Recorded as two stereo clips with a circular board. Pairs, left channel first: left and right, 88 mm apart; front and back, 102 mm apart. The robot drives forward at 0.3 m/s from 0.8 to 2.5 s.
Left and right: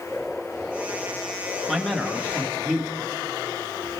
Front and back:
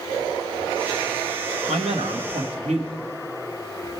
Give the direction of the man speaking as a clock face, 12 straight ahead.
6 o'clock.